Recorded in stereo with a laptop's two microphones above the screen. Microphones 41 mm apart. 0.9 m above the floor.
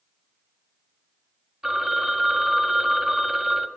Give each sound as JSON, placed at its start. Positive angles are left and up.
{"t": 1.6, "sound": "a phone ringing", "side_deg": -10, "distance_m": 1.5}